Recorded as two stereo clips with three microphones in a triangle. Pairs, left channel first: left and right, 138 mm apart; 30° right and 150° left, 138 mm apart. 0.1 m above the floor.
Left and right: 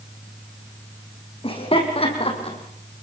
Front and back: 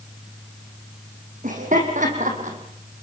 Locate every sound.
1.4 s laughter: 135° left, 5.5 m; by 2.6 s 130° left, 5 m